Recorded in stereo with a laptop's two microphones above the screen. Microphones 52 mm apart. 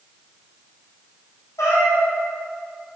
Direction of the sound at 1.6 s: 70° left (ahead or behind).